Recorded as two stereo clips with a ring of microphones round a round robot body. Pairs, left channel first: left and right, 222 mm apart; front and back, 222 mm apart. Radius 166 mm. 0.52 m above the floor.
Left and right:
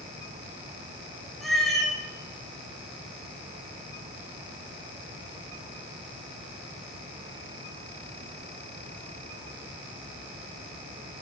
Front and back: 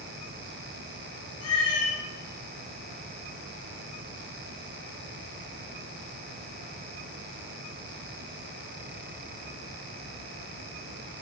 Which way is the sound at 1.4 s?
Straight ahead.